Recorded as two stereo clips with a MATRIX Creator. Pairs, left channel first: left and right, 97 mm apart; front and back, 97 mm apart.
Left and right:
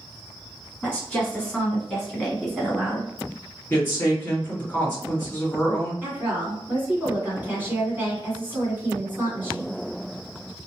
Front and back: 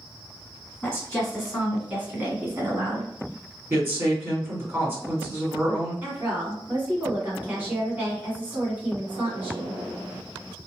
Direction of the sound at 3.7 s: 135° left.